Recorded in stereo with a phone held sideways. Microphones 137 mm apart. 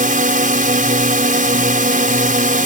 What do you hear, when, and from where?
0.0 s a drone: 75° right (ahead or behind)